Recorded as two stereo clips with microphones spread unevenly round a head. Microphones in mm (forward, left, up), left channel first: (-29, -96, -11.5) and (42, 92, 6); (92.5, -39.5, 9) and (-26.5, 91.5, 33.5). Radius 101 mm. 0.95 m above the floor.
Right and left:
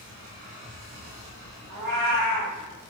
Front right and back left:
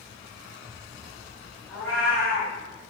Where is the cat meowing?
35° left, 1.5 m.